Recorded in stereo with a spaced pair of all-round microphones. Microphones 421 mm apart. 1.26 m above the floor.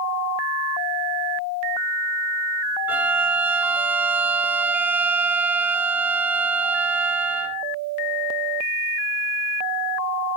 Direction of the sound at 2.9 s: 5° right (ahead or behind).